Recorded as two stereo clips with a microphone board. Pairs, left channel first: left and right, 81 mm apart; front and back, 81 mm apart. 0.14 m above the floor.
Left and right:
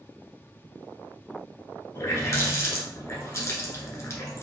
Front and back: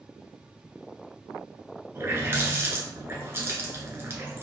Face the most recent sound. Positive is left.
turn(degrees=130)